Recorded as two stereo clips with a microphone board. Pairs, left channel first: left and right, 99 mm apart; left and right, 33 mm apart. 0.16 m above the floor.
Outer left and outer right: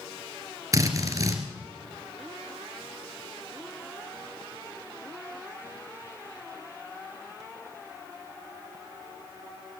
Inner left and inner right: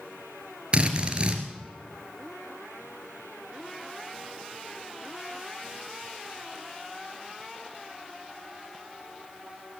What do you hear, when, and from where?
0.7 s a drill: 35° right (ahead or behind), 1.9 m